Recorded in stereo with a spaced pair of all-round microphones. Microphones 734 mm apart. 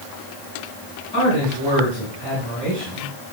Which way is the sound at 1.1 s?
35° left (ahead or behind).